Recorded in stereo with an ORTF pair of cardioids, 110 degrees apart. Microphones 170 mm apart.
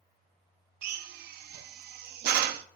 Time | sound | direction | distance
0.8 | a drill | 70° right | 0.6 m